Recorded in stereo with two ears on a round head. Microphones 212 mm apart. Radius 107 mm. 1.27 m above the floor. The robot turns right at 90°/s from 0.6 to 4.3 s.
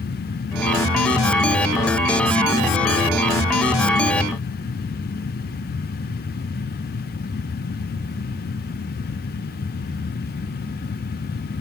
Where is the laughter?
I don't hear laughter.